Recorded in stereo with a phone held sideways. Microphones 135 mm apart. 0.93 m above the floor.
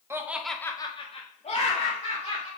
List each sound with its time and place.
0.1 s laughter: 20° right (ahead or behind), 0.7 m; by 2.5 s 50° left (ahead or behind), 1.7 m